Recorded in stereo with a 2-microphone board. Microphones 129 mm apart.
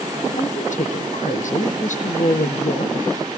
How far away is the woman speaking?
About 5 m.